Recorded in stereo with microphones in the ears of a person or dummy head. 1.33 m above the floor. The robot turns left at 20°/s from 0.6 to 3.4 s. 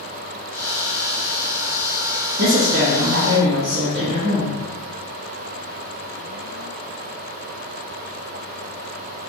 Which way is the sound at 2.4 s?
50° right (ahead or behind).